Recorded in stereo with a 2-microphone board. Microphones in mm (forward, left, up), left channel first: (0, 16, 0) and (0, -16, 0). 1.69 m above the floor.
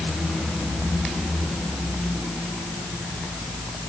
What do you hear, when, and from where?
Only background noise.